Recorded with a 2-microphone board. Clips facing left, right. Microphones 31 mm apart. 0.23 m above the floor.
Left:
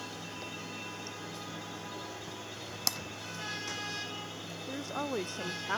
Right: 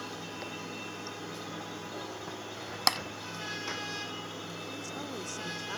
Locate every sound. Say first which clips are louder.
0.0 s running water: right 2 dB; 25° right (ahead or behind)
2.9 s tapping: right 8 dB; 55° right (ahead or behind)
4.7 s a woman speaking: left 8 dB; 35° left (ahead or behind)